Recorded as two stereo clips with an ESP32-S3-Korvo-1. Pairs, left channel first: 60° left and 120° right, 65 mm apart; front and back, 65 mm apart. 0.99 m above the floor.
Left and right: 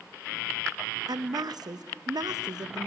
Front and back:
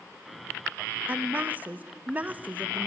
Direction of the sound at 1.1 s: 110° right.